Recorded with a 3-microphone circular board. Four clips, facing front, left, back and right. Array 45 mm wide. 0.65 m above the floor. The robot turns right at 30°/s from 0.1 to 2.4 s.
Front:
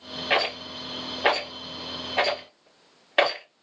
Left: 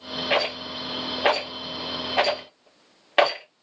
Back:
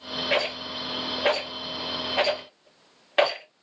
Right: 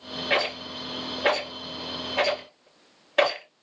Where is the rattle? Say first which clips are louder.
Left 1 dB, front 2 dB; 15° left, 1.5 m; by 3.5 s 75° left, 1.5 m.